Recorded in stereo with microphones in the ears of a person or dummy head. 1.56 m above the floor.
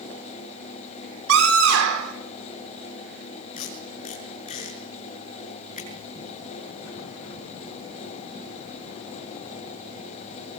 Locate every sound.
1.3 s a scream: 80° right, 6.5 m
3.6 s tape being pulled: 40° left (ahead or behind), 7.5 m